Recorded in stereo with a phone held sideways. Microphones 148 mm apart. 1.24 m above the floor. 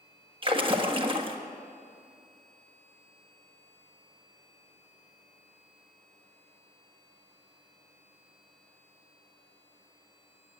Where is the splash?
35° right (ahead or behind), 1.4 m.